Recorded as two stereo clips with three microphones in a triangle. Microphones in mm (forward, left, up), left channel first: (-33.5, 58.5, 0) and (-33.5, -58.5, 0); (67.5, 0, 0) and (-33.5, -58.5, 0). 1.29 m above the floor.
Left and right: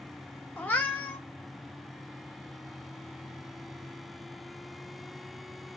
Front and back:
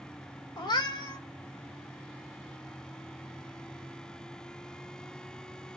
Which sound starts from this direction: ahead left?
A cat meowing, at 0.6 s.